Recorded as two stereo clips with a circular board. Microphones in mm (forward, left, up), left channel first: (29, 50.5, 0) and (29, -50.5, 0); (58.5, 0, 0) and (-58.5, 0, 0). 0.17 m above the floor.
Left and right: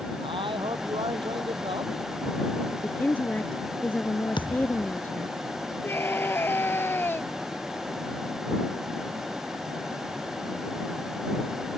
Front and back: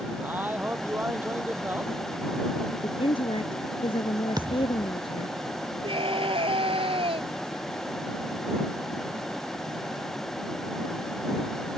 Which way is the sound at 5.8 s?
155° left.